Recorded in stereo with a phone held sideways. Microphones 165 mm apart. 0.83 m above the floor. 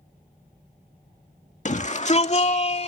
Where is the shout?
45° left (ahead or behind); by 2.9 s 40° left (ahead or behind).